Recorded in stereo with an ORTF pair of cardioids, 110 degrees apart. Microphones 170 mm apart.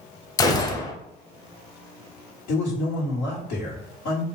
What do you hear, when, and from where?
0.4 s a gunshot: 20° left, 0.7 m
2.5 s a man speaking: 70° left, 1.7 m